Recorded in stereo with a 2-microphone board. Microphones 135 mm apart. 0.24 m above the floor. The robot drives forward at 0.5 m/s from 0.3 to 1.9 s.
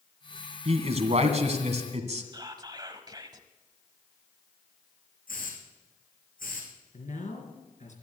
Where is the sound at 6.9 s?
60° left (ahead or behind), 3.5 m.